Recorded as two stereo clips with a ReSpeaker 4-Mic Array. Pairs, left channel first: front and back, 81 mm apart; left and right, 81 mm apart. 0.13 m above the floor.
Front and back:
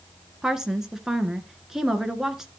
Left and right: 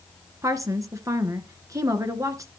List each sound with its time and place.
0.4 s a woman speaking: 100° right, 1.7 m